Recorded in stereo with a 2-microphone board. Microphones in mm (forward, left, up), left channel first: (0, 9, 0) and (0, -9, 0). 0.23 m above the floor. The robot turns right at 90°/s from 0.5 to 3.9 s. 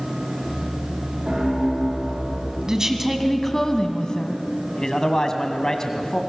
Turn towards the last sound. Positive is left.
turn(degrees=35)  # may be behind; listen again after turning